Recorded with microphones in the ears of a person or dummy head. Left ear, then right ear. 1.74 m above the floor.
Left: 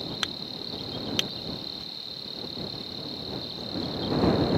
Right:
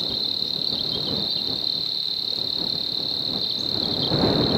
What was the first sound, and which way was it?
An insect, 25° right (ahead or behind).